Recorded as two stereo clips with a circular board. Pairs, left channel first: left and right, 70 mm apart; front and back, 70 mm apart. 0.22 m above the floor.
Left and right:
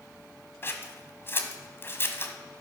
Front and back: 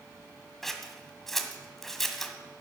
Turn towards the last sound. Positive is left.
turn(degrees=85)